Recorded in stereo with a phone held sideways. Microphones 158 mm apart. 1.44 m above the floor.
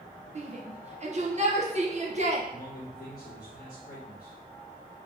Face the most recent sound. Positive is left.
turn(degrees=65)  # may be behind; listen again after turning